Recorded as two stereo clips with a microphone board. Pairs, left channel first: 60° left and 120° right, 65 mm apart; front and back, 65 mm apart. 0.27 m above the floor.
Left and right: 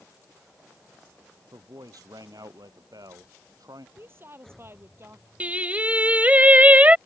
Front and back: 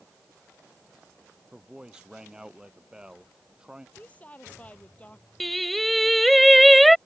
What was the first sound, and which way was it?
A man speaking, 105° right.